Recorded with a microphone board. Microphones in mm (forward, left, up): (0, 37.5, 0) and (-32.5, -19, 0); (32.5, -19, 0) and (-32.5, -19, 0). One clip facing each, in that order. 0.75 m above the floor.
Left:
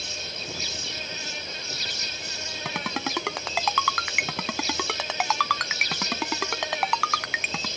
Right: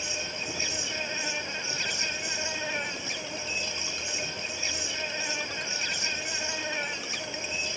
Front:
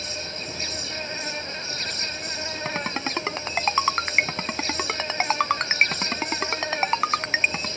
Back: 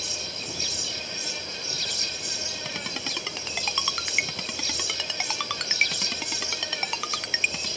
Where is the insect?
50° right.